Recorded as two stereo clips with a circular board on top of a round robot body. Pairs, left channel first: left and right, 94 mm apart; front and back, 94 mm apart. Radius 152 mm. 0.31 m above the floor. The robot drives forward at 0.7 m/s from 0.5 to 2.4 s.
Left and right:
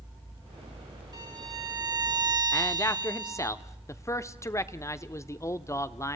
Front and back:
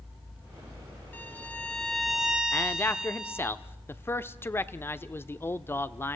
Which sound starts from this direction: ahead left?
A man speaking, at 2.5 s.